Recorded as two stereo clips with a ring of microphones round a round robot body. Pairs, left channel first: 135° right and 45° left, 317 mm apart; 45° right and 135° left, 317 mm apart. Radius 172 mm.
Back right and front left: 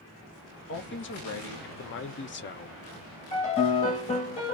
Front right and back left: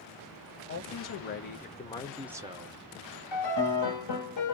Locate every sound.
0.7 s a man speaking: 85° right, 1.1 m; by 2.8 s 175° left, 0.6 m
3.3 s a piano: 70° right, 1.0 m